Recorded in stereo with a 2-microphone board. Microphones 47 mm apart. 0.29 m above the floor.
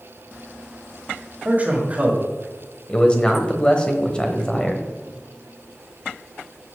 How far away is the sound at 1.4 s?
About 1.9 m.